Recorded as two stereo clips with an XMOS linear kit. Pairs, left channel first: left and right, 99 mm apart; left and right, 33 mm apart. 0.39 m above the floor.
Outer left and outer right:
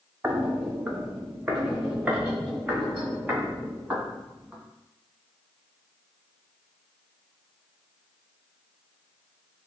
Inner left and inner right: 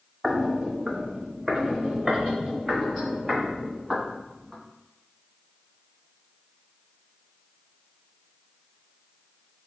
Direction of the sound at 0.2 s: 20° right (ahead or behind).